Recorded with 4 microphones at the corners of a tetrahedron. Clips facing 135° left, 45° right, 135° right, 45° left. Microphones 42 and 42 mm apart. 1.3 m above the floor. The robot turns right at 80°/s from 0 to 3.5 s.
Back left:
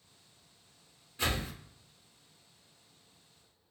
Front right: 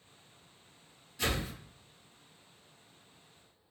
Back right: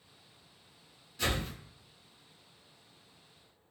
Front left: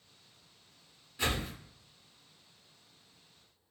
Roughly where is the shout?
I don't hear a shout.